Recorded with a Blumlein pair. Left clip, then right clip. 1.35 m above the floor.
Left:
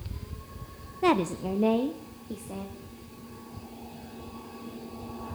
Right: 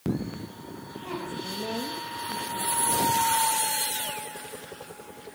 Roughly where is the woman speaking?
Ahead left.